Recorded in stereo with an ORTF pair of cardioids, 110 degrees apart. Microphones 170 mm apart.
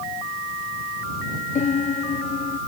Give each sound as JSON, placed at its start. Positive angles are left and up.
{"t": 1.6, "sound": "a piano", "azimuth_deg": 45}